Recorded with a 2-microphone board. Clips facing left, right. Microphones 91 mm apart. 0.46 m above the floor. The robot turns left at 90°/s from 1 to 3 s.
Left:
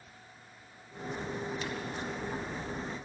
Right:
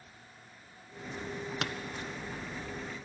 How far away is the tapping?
About 1.2 m.